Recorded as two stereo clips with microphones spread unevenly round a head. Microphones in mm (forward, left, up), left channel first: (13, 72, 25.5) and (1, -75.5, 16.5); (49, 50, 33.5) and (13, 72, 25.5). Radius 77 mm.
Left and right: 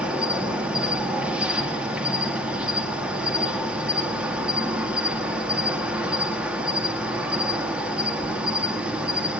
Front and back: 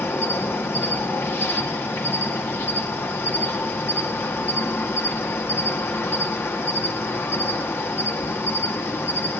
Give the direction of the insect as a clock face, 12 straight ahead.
12 o'clock.